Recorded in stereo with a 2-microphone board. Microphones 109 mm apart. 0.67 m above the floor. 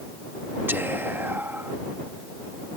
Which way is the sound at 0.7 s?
20° right (ahead or behind).